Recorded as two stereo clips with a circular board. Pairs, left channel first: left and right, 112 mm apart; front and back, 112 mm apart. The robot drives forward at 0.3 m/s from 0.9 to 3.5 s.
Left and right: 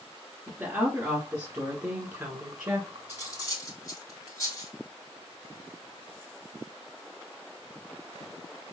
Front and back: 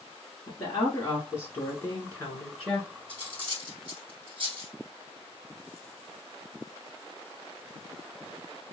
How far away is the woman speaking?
About 1.6 m.